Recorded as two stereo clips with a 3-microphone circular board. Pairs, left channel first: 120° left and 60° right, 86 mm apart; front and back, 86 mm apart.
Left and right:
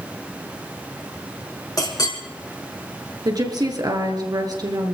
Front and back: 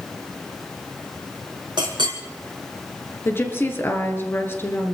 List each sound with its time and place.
1.8 s a clink: 155° left, 4 m
3.2 s a woman speaking: 55° right, 3 m